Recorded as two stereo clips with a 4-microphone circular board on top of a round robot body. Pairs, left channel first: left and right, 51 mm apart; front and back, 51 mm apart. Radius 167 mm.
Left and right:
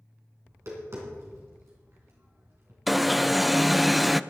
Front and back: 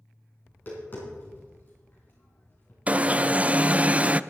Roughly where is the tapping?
Ahead right.